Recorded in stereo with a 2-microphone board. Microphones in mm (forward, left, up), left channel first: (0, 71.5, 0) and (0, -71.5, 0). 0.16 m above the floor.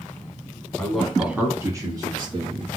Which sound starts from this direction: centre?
A man speaking, at 0.8 s.